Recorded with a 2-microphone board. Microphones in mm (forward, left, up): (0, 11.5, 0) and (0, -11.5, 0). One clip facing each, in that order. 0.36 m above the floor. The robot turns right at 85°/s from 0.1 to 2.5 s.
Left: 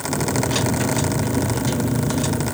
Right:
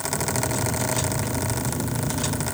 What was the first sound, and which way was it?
Only background noise.